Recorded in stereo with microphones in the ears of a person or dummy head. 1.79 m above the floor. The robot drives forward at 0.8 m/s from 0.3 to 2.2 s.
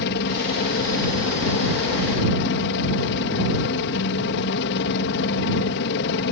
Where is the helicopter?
60° left (ahead or behind).